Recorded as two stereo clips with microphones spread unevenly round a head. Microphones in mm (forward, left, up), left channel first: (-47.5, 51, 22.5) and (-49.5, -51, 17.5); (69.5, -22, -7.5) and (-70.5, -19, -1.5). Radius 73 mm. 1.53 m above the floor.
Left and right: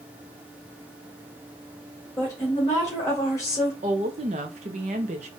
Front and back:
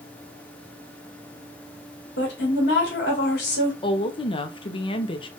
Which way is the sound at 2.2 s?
20° left.